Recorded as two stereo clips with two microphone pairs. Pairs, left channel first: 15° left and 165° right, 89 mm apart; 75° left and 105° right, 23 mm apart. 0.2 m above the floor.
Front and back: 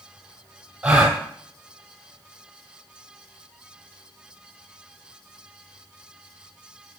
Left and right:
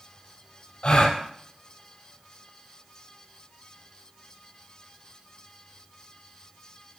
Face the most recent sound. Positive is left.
turn(degrees=115)